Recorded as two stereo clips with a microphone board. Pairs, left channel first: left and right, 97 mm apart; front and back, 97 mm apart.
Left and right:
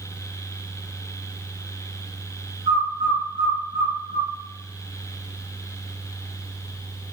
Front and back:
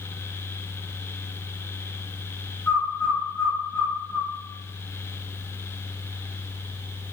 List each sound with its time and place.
2.7 s a bird: 75° right, 2 m